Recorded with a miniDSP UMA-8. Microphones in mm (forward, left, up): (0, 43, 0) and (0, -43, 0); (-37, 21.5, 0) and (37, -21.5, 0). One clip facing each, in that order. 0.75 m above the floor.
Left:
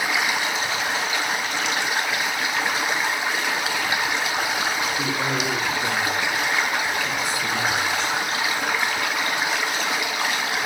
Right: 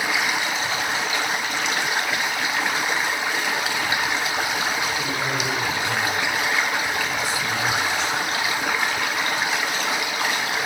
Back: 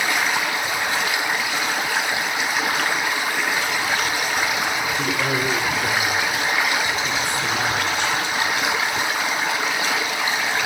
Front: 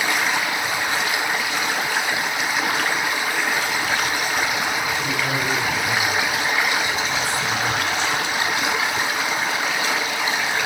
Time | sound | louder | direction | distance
5.0 | a man speaking | left 1 dB, back 1 dB | 120° left | 6.5 m